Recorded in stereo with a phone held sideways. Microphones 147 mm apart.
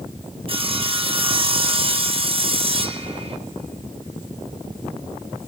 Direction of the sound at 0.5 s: 40° right (ahead or behind).